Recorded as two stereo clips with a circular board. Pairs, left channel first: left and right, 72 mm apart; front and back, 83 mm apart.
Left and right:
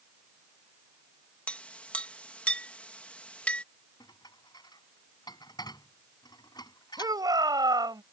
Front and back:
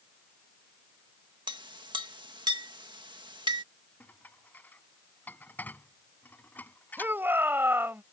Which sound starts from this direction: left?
Dishes clattering, at 4.0 s.